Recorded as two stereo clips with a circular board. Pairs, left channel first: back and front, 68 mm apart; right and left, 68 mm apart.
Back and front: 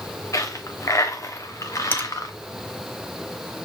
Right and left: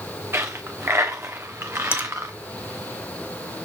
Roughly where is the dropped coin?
Behind left.